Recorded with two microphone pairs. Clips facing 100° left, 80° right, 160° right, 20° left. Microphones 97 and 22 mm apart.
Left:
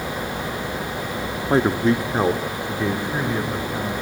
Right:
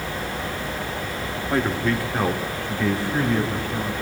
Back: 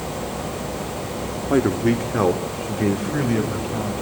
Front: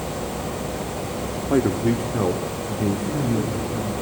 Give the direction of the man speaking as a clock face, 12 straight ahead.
8 o'clock.